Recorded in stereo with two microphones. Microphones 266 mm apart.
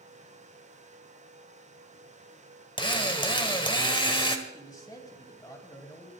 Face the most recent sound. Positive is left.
turn(degrees=15)  # may be behind; listen again after turning